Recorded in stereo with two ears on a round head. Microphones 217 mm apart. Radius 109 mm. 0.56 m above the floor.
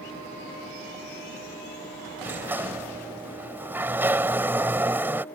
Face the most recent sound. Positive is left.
turn(degrees=-10)  # may be behind; listen again after turning